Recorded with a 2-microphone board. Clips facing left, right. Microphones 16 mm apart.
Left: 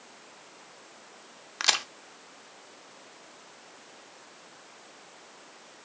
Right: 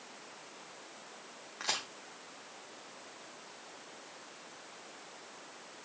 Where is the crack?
70° left (ahead or behind), 0.6 m.